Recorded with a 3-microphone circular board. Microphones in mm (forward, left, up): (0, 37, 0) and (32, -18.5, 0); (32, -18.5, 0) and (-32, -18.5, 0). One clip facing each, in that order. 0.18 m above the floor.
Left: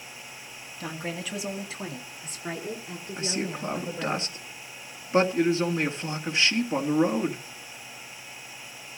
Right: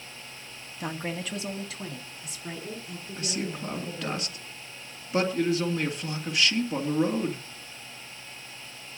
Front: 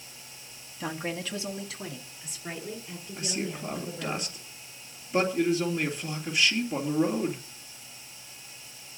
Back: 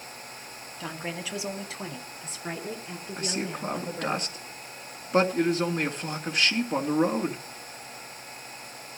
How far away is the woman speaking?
About 1.0 m.